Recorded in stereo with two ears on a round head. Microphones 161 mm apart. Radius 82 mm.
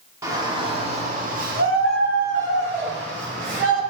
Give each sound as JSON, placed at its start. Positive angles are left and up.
{"t": 0.2, "sound": "a shout", "side_deg": -20, "distance_m": 1.5}